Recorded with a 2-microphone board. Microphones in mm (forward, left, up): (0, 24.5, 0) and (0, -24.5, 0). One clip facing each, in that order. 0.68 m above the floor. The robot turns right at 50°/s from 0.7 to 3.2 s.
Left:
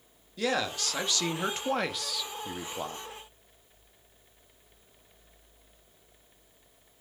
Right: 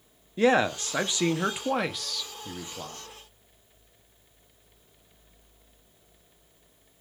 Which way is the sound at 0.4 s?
60° right.